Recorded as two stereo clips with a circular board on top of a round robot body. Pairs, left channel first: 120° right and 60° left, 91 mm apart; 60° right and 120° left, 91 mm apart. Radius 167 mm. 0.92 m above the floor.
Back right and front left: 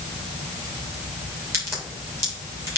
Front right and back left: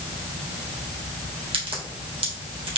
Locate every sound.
1.5 s a crack: 120° left, 3 m